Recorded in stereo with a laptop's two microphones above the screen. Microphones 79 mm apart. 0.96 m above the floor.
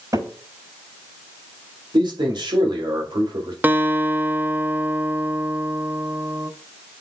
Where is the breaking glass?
No breaking glass in this recording.